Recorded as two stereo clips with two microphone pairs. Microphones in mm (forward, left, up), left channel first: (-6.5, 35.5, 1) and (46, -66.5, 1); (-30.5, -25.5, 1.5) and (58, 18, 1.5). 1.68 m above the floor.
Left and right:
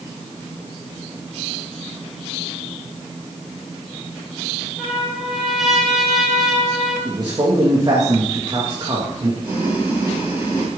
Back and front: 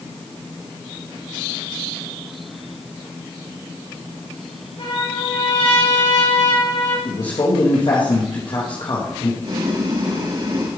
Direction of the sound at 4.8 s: 150° right.